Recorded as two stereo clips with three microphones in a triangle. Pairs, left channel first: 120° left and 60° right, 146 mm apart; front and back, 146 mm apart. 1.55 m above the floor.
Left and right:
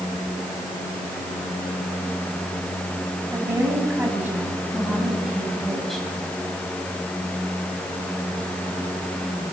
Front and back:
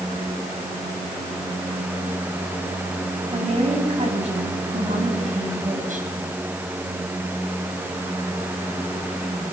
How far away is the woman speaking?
About 9.5 m.